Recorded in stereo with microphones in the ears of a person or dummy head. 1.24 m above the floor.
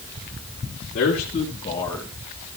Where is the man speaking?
45° left (ahead or behind), 1.8 m; by 2.1 s centre (ahead or behind), 0.9 m.